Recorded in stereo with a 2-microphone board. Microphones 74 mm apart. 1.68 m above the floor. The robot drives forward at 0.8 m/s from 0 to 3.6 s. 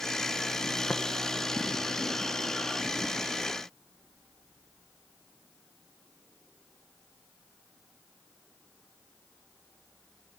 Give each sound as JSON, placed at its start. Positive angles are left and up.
{"t": 0.9, "sound": "tapping", "side_deg": 10, "distance_m": 1.0}